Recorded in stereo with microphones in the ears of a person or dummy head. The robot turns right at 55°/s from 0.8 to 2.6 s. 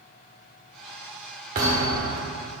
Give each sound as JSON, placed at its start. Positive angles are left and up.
{"t": 1.6, "sound": "a thud", "azimuth_deg": -125, "distance_m": 1.4}